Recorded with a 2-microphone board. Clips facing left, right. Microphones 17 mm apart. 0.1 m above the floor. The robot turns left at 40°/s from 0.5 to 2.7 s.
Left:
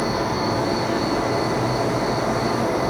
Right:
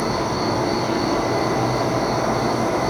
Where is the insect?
30° right, 1.1 m; by 2.9 s 120° right, 1.1 m.